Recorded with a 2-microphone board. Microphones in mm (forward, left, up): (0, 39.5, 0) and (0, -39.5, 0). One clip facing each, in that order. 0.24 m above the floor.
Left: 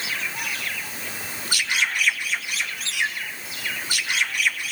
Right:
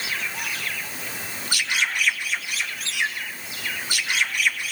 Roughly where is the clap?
No clap in this recording.